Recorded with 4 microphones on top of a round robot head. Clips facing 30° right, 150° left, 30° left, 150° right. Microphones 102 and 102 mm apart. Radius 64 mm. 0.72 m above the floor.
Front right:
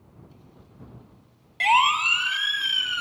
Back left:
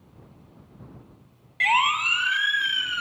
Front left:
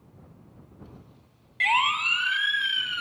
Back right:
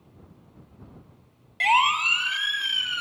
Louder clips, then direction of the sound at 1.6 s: Front right 3 dB, back right 4 dB; 90° right.